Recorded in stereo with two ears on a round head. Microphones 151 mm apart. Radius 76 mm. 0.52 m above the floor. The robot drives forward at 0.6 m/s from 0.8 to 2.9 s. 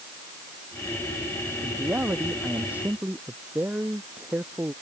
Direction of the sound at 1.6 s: 10° right (ahead or behind).